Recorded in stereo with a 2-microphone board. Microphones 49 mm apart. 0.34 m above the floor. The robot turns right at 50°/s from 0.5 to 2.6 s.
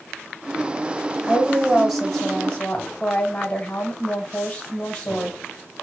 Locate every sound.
1.2 s a woman speaking: 35° right, 1.4 m; by 5.4 s 35° left, 1.4 m